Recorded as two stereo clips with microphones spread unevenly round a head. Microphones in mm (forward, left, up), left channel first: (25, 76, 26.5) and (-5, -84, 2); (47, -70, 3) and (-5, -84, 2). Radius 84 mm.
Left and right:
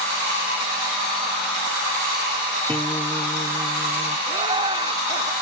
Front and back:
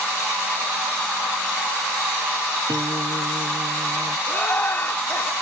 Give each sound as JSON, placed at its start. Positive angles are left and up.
{"t": 2.7, "sound": "a guitar", "azimuth_deg": 160}
{"t": 4.3, "sound": "laughter", "azimuth_deg": -35}